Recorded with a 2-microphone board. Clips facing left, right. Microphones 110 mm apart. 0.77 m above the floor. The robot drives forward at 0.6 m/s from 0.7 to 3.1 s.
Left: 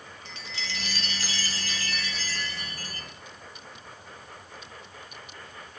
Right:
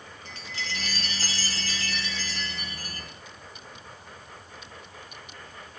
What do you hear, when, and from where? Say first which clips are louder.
0.2 s a chime: right 2 dB; 45° right (ahead or behind), 0.8 m; by 3.1 s 20° right (ahead or behind), 1.9 m